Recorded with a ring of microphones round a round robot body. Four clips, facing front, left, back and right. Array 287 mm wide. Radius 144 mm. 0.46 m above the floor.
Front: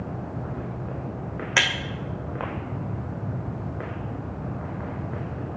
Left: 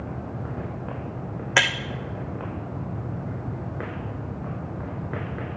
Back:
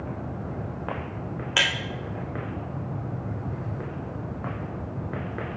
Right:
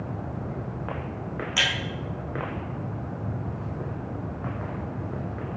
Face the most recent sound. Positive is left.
turn(degrees=80)